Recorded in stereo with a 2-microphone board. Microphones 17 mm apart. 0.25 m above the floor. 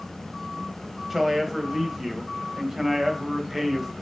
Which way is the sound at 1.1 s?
20° right (ahead or behind).